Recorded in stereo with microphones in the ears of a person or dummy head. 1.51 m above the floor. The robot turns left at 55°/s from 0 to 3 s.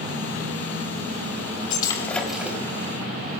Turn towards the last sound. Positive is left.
turn(degrees=-35)